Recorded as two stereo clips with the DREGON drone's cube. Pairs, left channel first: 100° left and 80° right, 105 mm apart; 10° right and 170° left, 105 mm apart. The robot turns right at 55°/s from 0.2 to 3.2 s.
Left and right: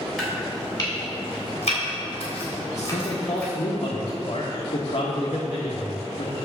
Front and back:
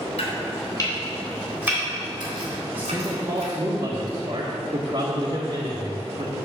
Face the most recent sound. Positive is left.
turn(degrees=130)